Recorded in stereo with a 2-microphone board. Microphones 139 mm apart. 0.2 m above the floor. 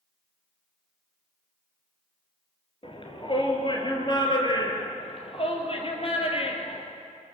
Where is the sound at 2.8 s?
40° left (ahead or behind), 4 m; by 4.9 s 30° left (ahead or behind), 5.5 m.